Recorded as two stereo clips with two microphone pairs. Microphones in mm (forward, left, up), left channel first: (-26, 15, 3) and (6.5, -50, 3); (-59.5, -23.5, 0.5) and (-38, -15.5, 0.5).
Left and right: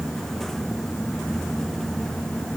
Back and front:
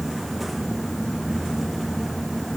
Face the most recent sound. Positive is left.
No sound to turn to.